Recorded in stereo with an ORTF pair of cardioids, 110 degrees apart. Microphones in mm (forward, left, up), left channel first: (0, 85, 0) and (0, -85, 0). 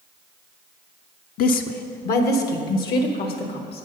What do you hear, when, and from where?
1.4 s a woman speaking: 55° left, 0.5 m; by 3.9 s 70° left, 1.8 m